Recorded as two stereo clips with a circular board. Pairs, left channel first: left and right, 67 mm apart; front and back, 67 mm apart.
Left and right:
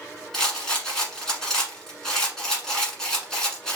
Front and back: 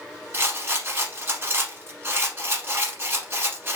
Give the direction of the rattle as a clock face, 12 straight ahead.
6 o'clock.